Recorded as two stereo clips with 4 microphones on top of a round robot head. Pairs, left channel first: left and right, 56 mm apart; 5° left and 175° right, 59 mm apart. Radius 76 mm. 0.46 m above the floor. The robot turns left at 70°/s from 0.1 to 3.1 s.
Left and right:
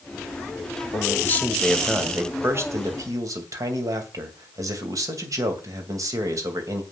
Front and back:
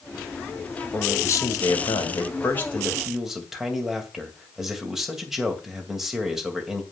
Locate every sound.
0.9 s a man speaking: 60° left, 2.5 m; by 6.8 s 90° right, 2.5 m